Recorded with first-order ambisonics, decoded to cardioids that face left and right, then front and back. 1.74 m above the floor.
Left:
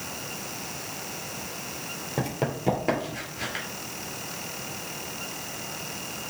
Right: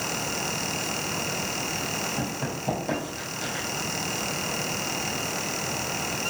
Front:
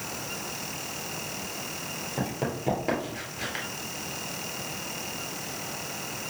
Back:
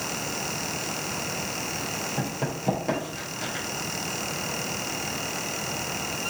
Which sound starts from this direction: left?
Running footsteps, at 2.2 s.